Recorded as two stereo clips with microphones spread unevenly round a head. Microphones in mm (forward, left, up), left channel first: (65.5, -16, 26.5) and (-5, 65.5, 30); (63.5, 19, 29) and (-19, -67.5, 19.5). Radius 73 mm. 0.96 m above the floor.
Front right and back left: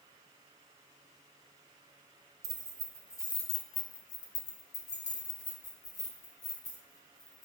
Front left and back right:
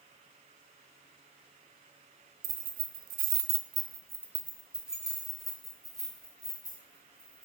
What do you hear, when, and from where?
2.4 s keys jangling: 165° right, 0.7 m; by 7.5 s 35° right, 3 m